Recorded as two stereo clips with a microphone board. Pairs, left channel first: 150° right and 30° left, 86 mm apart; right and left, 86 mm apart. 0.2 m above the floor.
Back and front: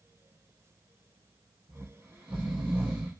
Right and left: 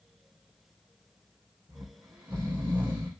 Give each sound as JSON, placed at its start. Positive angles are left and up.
{"t": 1.7, "sound": "snoring", "azimuth_deg": 40, "distance_m": 3.0}